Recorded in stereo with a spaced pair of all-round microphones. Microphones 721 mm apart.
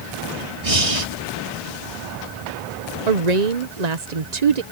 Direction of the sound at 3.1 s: 60° right (ahead or behind).